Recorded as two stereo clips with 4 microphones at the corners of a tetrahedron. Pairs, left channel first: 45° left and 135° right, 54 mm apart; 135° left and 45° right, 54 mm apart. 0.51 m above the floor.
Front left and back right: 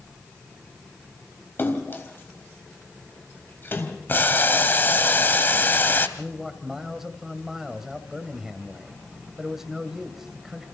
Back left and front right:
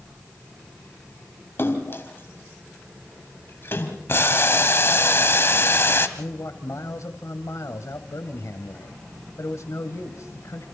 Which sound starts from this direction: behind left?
A man speaking, at 6.2 s.